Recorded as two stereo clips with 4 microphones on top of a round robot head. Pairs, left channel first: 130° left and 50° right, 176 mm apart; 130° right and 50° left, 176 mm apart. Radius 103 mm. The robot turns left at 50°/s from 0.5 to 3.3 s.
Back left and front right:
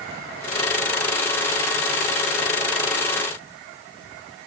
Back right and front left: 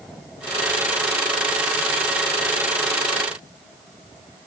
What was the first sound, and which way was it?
Only background noise.